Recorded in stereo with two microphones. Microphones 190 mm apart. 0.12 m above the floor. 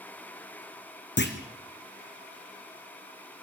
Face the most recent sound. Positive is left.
turn(degrees=65)  # may be behind; listen again after turning